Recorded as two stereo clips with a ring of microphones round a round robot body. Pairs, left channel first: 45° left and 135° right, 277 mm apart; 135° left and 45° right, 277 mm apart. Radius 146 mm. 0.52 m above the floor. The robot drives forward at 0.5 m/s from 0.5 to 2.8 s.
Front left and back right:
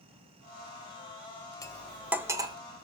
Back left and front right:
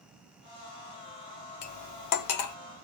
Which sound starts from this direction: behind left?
Cutlery clinking, at 1.6 s.